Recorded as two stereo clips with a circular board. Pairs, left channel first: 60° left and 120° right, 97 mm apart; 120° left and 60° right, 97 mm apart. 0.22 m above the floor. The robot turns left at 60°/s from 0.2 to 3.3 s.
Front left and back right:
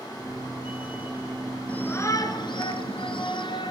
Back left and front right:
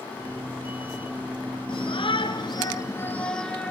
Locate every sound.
1.7 s a shout: 135° left, 3 m; by 3.7 s 40° left, 3 m